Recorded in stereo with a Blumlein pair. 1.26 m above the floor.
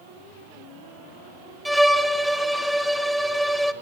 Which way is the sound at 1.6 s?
Straight ahead.